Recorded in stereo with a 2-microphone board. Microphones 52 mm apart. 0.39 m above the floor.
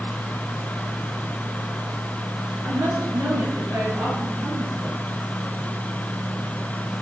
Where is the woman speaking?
80° right, 6 m; by 5.0 s 55° right (ahead or behind), 6 m.